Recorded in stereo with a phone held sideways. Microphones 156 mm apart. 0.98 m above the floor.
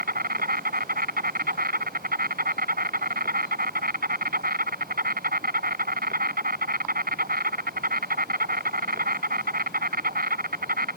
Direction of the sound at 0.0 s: 85° right.